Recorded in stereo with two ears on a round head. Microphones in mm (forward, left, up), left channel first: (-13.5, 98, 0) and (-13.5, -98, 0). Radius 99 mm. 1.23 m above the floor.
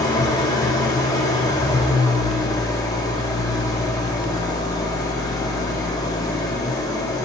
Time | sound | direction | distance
0.0 | an engine running | 15° left (ahead or behind) | 0.7 m